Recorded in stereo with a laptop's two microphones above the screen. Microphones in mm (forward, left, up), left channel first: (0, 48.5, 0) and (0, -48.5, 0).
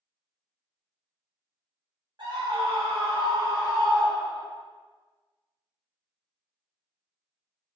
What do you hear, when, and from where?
2.2 s a scream: 50° right (ahead or behind), 0.8 m; by 4.5 s 10° right (ahead or behind), 1.2 m